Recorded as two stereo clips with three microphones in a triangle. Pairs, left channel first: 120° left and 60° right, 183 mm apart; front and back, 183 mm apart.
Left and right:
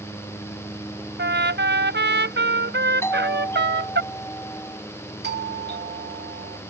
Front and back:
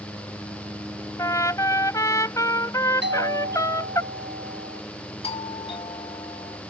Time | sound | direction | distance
1.2 | a trumpet | 70° right | ?
3.0 | a doorbell | 165° right | ?
5.2 | a doorbell | 55° right | ?